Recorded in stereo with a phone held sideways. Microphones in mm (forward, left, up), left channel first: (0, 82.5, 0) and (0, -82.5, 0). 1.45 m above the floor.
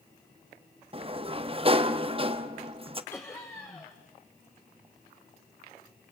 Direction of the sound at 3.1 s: 15° left (ahead or behind).